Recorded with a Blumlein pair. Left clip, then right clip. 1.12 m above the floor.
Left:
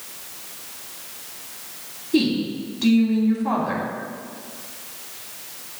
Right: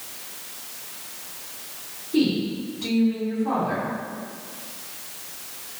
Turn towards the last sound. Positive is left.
turn(degrees=60)